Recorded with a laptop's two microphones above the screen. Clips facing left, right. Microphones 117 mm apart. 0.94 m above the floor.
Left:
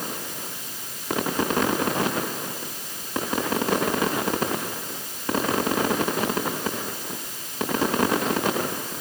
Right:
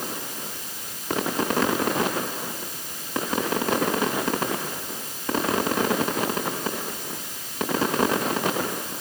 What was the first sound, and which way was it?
Only background noise.